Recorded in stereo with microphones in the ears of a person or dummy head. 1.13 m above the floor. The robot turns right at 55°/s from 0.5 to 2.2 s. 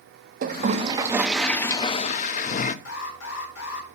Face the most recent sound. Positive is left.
turn(degrees=70)  # may be behind; listen again after turning